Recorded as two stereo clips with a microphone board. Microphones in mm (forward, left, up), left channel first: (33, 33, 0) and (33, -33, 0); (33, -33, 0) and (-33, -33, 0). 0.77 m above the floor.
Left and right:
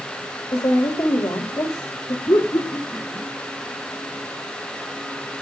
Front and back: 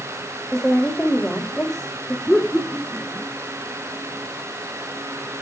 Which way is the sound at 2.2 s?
95° left.